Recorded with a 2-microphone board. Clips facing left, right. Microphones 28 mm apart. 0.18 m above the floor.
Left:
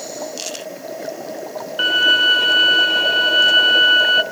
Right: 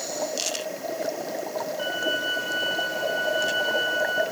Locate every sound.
1.8 s a violin: 85° left, 0.8 m